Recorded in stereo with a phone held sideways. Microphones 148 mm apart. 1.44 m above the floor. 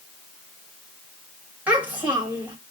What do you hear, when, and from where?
1.7 s a child speaking: 10° right (ahead or behind), 2.0 m